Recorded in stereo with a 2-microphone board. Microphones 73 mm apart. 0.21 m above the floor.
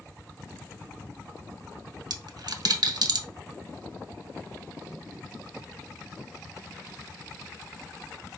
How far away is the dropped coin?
About 0.6 m.